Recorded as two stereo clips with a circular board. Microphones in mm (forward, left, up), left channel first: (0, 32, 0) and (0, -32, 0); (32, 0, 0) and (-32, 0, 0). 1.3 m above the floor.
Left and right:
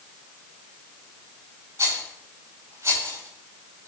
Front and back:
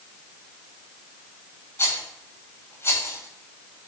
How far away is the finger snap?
No finger snap in this recording.